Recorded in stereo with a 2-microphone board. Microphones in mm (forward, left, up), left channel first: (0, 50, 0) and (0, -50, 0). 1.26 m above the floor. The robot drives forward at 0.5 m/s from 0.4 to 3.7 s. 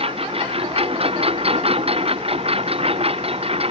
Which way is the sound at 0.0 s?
75° right (ahead or behind).